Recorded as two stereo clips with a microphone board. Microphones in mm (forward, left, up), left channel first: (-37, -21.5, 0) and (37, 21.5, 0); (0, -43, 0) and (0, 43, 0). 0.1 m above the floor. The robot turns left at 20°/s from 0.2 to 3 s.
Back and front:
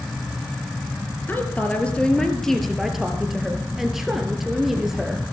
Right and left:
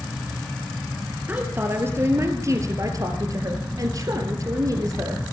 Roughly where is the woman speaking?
Behind left.